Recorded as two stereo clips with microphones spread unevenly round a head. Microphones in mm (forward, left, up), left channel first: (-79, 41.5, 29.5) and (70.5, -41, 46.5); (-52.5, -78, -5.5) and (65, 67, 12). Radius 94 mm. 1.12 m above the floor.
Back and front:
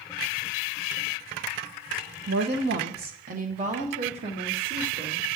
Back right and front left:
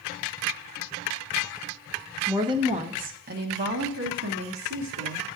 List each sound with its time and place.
2.3 s a woman speaking: 30° right, 1.0 m; by 5.3 s 35° left, 2.5 m